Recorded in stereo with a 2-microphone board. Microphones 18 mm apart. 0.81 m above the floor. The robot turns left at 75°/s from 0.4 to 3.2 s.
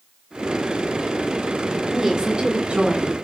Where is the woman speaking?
10° right, 8 m; by 3.2 s 125° right, 8 m.